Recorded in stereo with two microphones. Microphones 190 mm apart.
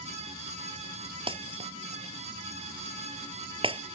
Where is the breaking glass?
30° right (ahead or behind).